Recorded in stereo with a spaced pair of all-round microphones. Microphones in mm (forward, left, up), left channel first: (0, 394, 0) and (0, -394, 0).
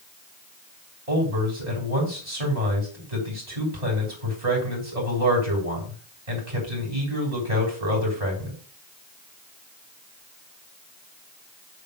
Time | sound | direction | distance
1.1 | a man speaking | 55° right (ahead or behind) | 3.5 m